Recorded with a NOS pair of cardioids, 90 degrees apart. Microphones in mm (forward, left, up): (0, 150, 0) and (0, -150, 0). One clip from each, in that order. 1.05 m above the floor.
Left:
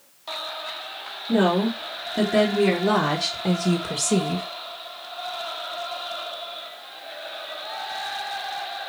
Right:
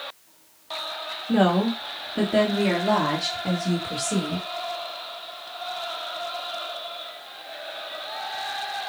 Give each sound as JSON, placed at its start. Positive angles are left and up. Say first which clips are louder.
{"t": 1.3, "sound": "a woman speaking", "louder": "even", "azimuth_deg": -15, "distance_m": 2.0}